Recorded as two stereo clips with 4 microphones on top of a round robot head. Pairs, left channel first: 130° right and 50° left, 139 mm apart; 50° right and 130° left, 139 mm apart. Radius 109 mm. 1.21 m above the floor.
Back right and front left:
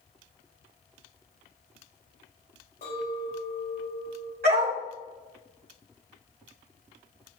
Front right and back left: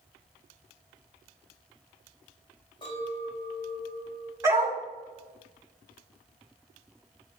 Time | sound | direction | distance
2.8 | a clink | 105° right | 5 m
4.4 | a dog barking | 65° left | 4 m